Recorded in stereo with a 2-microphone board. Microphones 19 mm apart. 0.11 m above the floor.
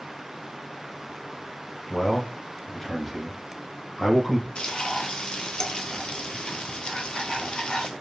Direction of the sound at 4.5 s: 50° left (ahead or behind).